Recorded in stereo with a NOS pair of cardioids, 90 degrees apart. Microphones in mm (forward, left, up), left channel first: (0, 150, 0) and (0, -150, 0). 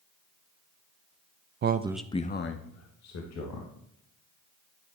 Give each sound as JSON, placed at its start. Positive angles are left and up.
{"t": 1.6, "sound": "a man speaking", "azimuth_deg": -40, "distance_m": 0.6}